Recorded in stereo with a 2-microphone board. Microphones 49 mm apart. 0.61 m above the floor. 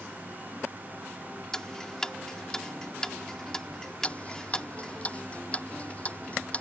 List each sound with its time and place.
1.5 s ticking: 10° left (ahead or behind)
4.0 s ticking: 25° left (ahead or behind)